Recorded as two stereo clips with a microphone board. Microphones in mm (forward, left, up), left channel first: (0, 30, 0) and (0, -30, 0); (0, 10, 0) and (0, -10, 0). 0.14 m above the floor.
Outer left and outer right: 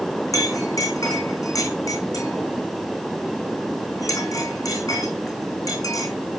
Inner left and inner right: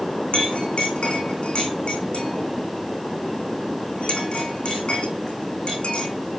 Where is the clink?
70° left (ahead or behind), 4.5 m.